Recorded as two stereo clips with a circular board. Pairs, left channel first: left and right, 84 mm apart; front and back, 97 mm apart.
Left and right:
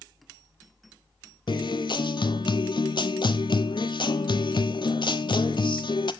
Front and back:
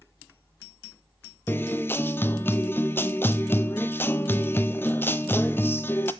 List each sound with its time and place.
1.5 s a guitar: 65° left, 0.5 m